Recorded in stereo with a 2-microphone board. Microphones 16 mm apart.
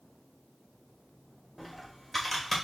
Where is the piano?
I don't hear a piano.